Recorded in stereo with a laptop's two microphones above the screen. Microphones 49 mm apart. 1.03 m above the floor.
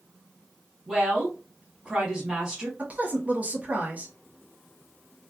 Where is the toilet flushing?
I don't hear a toilet flushing.